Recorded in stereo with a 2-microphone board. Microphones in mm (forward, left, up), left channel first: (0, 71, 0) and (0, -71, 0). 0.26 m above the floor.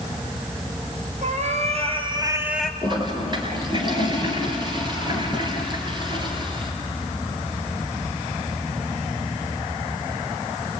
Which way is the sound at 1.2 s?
60° right (ahead or behind).